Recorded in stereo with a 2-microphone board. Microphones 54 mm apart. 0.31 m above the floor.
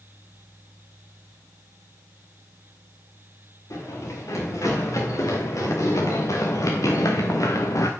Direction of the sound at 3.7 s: 80° left.